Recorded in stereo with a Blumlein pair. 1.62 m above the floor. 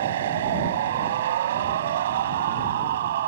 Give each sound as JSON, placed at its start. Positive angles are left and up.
{"t": 0.0, "sound": "a machine running", "azimuth_deg": -60}